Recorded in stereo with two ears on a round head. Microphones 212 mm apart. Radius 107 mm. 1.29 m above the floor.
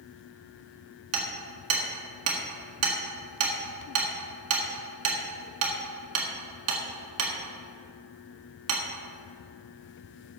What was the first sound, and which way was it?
Hammering, 70° right (ahead or behind).